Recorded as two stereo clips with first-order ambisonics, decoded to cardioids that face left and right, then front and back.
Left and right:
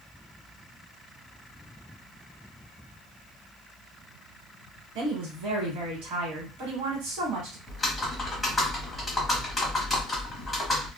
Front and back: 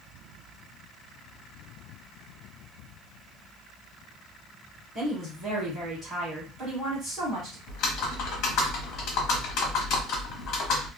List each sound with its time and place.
5.0 s a woman speaking: 110° right, 1.4 m
7.7 s typing on a keyboard: 10° left, 1.0 m